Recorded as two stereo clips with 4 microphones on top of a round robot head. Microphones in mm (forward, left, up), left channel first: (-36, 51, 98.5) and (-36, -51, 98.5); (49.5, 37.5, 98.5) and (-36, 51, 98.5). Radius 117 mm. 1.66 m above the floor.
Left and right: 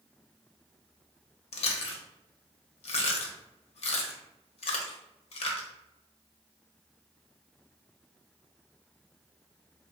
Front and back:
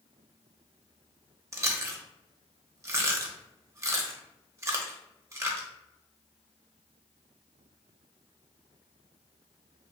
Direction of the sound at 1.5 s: 110° left.